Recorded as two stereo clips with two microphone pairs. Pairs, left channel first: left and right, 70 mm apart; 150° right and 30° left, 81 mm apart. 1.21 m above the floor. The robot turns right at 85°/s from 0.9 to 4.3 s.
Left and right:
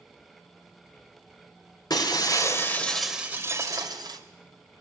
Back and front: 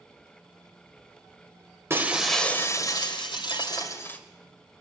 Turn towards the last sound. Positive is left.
turn(degrees=-70)